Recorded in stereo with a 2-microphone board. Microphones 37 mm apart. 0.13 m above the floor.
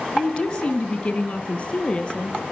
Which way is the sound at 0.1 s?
25° left (ahead or behind).